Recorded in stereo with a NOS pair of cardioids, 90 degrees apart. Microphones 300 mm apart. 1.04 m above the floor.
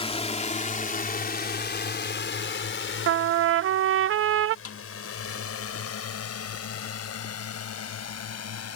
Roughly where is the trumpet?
Ahead right.